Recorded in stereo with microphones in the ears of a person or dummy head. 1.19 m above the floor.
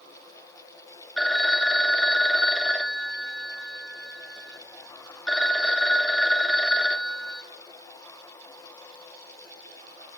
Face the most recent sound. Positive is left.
turn(degrees=-5)  # may be behind; listen again after turning